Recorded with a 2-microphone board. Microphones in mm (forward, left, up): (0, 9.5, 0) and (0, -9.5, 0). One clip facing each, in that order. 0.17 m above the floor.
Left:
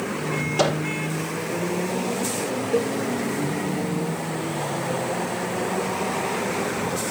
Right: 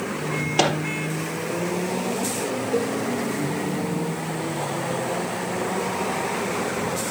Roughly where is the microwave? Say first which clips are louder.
Right 1 dB; right.